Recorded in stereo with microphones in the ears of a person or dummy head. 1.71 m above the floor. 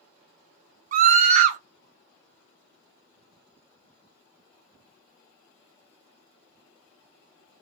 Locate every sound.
0.9 s a scream: 50° right (ahead or behind), 0.6 m